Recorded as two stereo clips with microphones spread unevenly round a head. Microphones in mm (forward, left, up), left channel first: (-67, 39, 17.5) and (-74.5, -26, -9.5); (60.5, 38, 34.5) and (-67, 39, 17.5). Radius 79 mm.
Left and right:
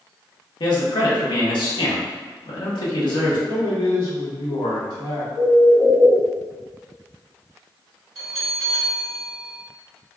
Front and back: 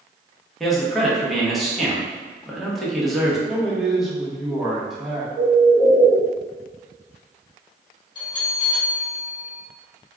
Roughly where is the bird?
Behind left.